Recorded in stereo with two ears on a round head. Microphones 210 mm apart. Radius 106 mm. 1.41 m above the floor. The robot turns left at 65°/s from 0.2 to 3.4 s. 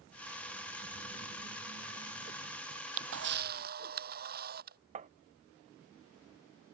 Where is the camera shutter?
90° right; by 4.8 s 135° right.